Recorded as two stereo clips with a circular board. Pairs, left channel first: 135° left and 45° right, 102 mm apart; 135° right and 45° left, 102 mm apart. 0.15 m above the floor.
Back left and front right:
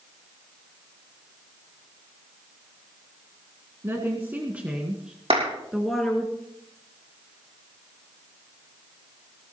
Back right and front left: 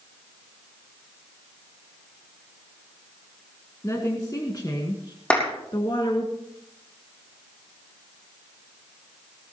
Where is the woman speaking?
95° right, 1.9 m; by 6.3 s 140° right, 2.5 m.